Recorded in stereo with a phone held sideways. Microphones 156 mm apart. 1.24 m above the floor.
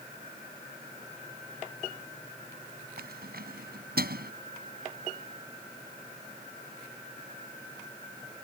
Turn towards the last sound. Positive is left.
turn(degrees=-80)